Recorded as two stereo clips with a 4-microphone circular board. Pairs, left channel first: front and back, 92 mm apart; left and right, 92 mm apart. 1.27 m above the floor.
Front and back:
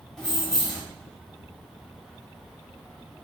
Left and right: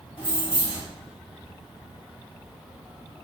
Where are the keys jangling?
85° left, 1.9 m.